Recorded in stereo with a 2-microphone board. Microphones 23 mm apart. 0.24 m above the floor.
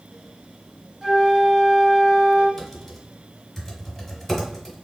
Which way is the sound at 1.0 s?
25° right (ahead or behind).